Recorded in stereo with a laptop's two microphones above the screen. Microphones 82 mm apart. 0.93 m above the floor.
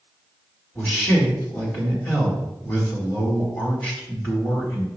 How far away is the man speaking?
About 2 m.